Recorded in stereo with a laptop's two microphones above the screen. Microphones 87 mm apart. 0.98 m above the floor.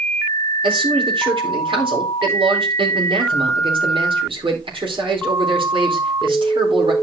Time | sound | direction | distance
0.6 | a man speaking | 75° right (ahead or behind) | 3.5 m